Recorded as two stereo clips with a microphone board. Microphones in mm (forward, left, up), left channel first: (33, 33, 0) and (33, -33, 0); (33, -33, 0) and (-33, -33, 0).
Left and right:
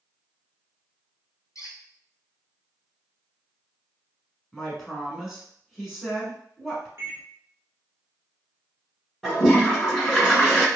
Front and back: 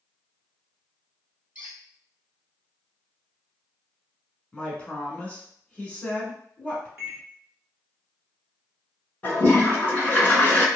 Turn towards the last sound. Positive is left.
turn(degrees=15)